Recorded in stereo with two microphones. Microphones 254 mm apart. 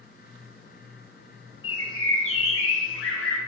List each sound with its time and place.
1.6 s a bird: 60° left (ahead or behind), 0.7 m